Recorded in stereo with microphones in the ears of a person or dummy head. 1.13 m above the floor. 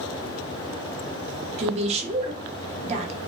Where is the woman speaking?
35° right (ahead or behind), 0.6 m.